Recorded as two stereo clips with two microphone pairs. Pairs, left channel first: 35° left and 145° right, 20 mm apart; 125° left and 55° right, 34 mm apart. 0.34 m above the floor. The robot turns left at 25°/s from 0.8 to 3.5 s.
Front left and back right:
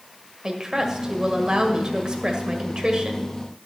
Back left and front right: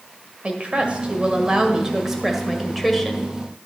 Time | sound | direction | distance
0.4 | a woman speaking | 100° right | 1.5 m